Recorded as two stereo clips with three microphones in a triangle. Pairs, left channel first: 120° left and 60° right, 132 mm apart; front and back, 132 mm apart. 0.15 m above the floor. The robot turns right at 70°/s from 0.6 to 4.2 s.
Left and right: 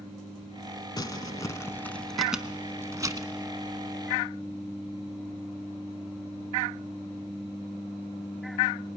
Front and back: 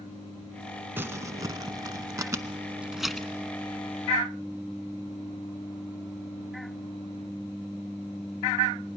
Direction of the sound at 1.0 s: 120° left.